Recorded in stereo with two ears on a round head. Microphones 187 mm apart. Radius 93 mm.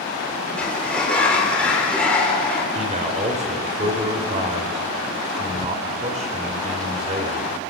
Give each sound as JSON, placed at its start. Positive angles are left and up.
{"t": 0.6, "sound": "a sliding door", "side_deg": 5, "distance_m": 4.5}
{"t": 2.8, "sound": "a man speaking", "side_deg": -35, "distance_m": 4.0}